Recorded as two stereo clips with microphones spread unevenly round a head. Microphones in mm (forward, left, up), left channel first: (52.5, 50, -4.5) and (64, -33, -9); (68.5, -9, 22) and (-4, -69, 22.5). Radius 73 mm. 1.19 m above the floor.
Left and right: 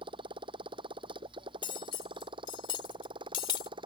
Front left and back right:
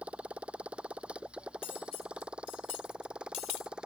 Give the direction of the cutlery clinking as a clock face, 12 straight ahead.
9 o'clock.